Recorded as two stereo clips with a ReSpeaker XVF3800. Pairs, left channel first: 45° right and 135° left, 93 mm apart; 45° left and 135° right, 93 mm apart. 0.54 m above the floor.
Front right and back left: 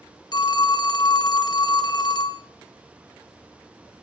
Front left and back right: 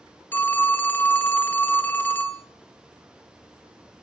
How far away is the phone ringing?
About 0.5 m.